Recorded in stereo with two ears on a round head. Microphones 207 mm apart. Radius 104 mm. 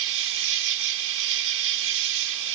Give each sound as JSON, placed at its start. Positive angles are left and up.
{"t": 0.0, "sound": "an insect", "side_deg": -70}